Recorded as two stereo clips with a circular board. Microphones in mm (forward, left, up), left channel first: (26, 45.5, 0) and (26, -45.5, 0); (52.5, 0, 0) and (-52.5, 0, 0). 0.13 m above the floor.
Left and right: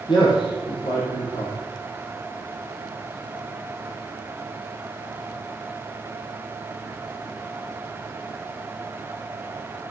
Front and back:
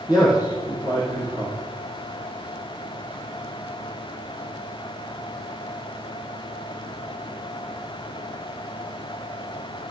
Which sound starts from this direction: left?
A man speaking, at 0.1 s.